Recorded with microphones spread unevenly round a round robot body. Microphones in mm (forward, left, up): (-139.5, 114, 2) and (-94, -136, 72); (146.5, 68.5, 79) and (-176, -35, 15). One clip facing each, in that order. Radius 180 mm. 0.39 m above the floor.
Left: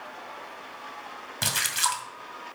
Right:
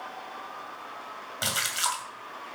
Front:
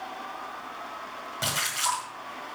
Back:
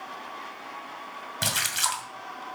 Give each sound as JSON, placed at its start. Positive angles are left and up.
{"t": 1.4, "sound": "a splash", "azimuth_deg": 150, "distance_m": 2.0}